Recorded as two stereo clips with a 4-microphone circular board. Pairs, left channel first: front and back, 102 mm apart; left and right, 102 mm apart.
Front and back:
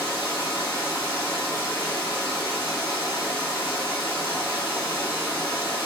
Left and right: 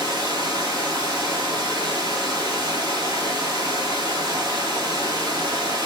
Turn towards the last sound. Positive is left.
turn(degrees=-45)